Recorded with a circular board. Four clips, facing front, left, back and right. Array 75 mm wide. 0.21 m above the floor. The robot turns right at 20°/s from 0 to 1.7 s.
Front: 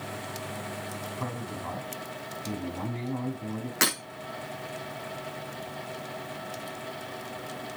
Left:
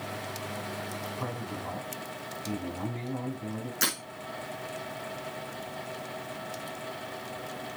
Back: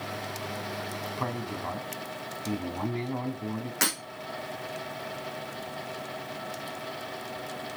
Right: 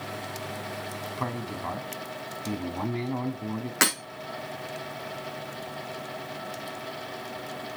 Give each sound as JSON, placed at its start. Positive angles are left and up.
{"t": 1.2, "sound": "a man speaking", "azimuth_deg": -125, "distance_m": 1.8}
{"t": 3.8, "sound": "breaking glass", "azimuth_deg": -75, "distance_m": 6.0}